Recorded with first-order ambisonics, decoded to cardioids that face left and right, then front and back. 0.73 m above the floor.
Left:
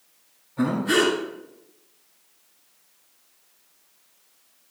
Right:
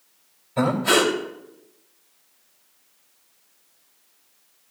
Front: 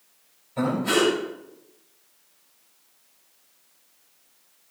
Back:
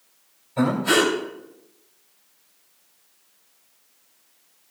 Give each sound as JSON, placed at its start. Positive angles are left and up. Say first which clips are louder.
{"t": 0.6, "sound": "breathing", "louder": "right 3 dB, back 3 dB", "azimuth_deg": -95, "distance_m": 2.5}